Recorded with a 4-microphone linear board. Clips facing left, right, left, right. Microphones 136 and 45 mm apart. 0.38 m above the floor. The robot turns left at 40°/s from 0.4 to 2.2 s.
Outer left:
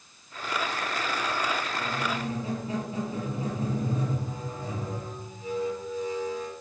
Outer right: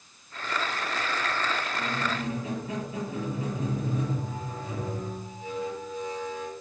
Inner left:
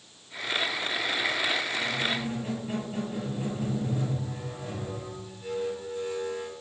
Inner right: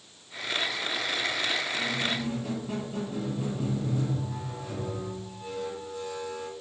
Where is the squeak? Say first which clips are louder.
Even, inner left 1 dB; 15° left (ahead or behind), 5.5 m; by 6.5 s 30° left (ahead or behind), 5.5 m.